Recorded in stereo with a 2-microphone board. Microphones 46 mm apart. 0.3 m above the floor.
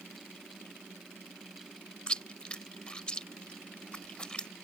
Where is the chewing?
20° left (ahead or behind).